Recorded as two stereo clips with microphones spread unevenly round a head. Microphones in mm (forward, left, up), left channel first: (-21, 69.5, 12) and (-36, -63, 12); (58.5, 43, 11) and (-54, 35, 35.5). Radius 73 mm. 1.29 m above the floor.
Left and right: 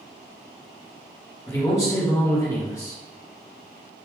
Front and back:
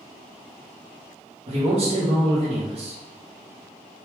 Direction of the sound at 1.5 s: 150° left.